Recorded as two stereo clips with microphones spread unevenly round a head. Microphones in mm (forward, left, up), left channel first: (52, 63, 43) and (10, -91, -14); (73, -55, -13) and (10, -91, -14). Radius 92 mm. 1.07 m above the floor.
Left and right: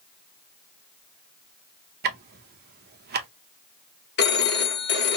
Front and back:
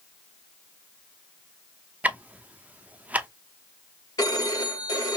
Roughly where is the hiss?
No hiss in this recording.